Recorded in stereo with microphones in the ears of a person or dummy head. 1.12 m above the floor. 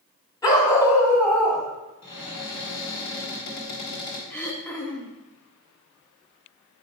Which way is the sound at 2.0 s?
70° left (ahead or behind).